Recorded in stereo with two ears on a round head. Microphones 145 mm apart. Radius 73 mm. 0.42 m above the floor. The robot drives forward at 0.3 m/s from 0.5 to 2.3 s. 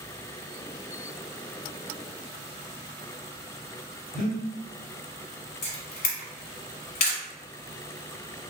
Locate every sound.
4.1 s breathing: 60° left (ahead or behind), 1.7 m
5.6 s a camera shutter: 60° left (ahead or behind), 1.4 m